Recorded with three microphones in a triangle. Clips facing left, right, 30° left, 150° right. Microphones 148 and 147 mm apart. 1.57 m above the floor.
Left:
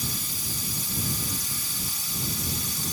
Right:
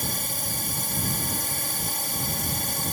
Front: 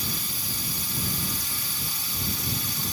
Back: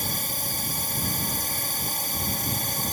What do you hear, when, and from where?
0.0 s a drone: 115° right